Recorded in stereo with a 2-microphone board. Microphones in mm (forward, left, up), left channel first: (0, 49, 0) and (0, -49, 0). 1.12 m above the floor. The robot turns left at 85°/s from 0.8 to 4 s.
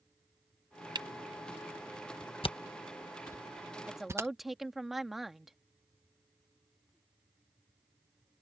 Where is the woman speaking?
15° right (ahead or behind); by 5.6 s 5° right (ahead or behind).